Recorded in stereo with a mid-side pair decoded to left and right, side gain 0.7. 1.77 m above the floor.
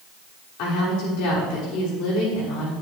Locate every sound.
0.6 s a woman speaking: 65° left, 6 m